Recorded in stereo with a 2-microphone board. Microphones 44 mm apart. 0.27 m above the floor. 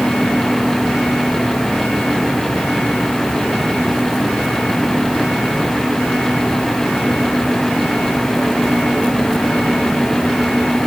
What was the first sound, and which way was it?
Only background noise.